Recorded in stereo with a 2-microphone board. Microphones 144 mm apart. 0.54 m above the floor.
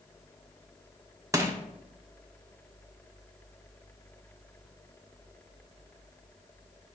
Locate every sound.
1.3 s crushing: 20° right (ahead or behind), 0.9 m